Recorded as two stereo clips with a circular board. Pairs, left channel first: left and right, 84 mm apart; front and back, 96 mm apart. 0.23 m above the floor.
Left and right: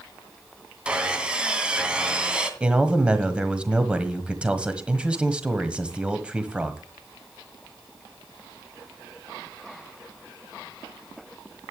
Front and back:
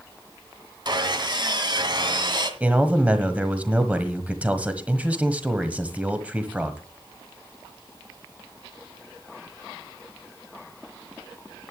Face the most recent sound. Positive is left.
turn(degrees=-140)